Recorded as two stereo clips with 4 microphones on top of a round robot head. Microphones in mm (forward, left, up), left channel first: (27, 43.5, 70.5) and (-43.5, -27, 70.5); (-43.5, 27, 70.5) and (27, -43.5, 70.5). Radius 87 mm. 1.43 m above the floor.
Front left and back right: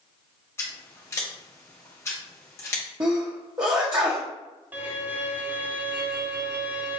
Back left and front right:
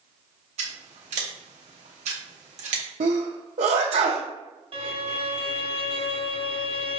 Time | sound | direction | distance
0.6 | scissors | 25° right | 0.6 m
3.0 | a sneeze | 75° right | 0.6 m
4.7 | a violin | 65° right | 0.7 m